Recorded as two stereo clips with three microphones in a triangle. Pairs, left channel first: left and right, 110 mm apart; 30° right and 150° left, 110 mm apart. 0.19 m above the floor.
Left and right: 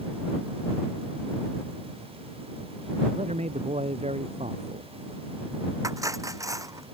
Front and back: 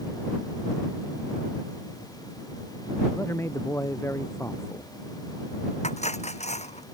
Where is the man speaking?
95° right.